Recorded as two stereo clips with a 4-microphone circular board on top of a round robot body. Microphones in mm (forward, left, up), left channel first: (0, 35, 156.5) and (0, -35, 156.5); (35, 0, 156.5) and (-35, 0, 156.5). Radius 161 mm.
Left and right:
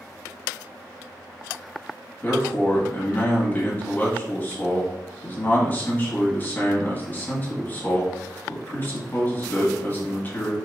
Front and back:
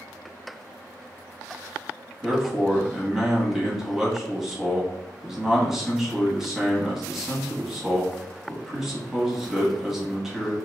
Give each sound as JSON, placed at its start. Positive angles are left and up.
{"t": 2.2, "sound": "a man speaking", "azimuth_deg": 100, "distance_m": 1.3}